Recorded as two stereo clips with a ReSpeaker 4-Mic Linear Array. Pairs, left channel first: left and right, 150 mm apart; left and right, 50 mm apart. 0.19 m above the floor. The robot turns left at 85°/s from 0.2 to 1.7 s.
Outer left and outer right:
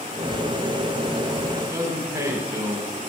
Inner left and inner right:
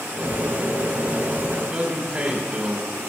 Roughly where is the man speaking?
Centre.